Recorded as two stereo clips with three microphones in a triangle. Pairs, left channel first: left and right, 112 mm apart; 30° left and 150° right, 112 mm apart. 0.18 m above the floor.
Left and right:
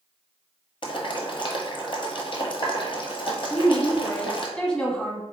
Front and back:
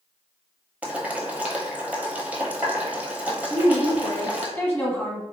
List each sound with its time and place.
0.8 s boiling: 135° left, 0.8 m
3.5 s a woman speaking: 35° left, 1.0 m